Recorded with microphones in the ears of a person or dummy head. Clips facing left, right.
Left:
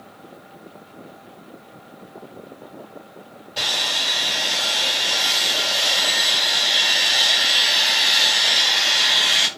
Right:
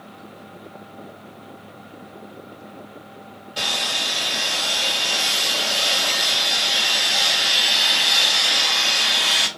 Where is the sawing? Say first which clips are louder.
Right 1 dB; 10° right (ahead or behind), 1.4 m.